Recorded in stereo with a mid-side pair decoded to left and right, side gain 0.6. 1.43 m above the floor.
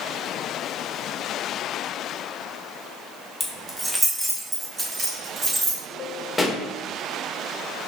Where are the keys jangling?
Straight ahead, 1.2 m; by 5.8 s 30° right, 2.5 m.